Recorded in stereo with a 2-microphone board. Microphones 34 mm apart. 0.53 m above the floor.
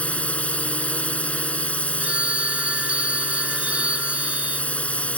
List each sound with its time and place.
0.0 s a drone: 45° left (ahead or behind)
2.0 s a phone ringing: 30° right (ahead or behind)